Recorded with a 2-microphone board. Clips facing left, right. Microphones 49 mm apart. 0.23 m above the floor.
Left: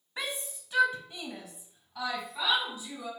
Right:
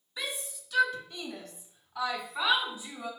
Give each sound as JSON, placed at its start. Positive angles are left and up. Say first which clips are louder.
{"t": 0.2, "sound": "a shout", "louder": "left 1 dB", "side_deg": 40, "distance_m": 1.3}